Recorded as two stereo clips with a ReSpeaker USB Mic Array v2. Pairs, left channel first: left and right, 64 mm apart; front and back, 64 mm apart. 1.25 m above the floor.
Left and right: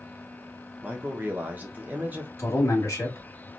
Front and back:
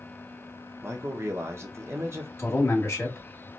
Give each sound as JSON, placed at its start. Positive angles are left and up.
{"t": 0.8, "sound": "a man speaking", "azimuth_deg": -145, "distance_m": 0.8}
{"t": 2.4, "sound": "a man speaking", "azimuth_deg": 50, "distance_m": 1.5}